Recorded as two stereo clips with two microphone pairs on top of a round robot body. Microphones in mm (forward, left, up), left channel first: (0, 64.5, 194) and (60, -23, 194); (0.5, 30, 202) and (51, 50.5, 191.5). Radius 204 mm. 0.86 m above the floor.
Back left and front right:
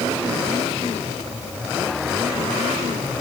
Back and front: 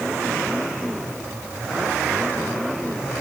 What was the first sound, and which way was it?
Only background noise.